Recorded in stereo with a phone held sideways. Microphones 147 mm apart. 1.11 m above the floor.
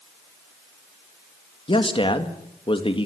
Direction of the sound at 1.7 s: 35° left (ahead or behind).